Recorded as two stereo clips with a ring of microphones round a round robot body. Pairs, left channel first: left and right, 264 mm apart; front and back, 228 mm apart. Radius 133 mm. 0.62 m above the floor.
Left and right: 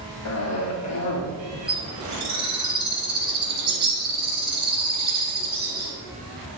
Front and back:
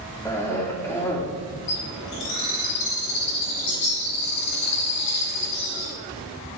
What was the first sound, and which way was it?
A cough, 80° left.